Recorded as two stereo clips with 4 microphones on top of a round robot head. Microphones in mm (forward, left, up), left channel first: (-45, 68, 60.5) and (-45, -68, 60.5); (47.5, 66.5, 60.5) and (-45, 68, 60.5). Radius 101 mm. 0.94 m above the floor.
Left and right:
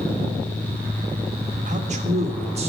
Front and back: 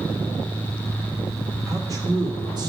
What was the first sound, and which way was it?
A man speaking, 120° right.